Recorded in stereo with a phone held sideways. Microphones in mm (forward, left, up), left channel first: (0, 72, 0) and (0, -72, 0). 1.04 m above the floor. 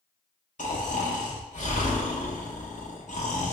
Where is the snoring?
60° left (ahead or behind), 0.7 m.